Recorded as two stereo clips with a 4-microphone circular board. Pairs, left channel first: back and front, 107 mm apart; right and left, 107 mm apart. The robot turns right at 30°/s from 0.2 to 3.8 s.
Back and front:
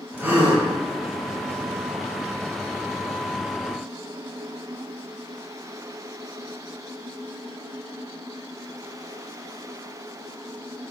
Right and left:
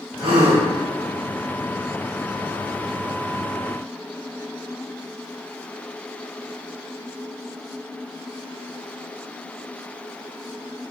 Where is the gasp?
65° left, 1.9 m; by 0.7 s 80° left, 1.9 m.